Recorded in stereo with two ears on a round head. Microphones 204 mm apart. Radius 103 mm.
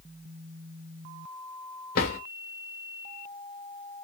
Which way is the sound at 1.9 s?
45° left (ahead or behind).